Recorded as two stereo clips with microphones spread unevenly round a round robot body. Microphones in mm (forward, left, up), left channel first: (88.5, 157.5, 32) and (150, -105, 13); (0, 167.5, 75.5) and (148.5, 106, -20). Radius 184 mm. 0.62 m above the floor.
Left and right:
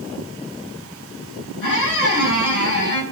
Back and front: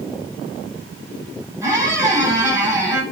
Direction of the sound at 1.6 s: 65° left.